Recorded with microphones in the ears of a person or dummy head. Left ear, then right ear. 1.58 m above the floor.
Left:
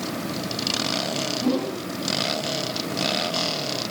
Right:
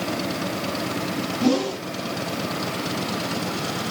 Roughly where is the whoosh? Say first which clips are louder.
Right 3 dB; right.